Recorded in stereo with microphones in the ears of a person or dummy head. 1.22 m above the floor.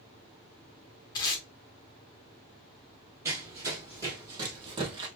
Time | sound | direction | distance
1.1 | tape being pulled | 25° left (ahead or behind) | 1.0 m
3.2 | running footsteps | 20° right (ahead or behind) | 1.5 m